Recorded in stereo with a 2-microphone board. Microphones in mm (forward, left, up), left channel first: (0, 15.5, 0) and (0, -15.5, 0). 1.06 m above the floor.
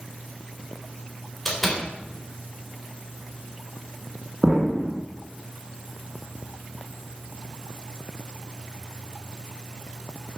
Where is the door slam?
5° left (ahead or behind), 3.5 m.